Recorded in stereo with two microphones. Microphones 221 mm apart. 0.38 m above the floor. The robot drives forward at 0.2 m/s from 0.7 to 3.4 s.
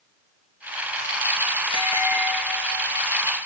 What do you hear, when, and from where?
1.7 s a bell: 20° left (ahead or behind), 1.1 m; by 3.1 s 15° left (ahead or behind), 1.4 m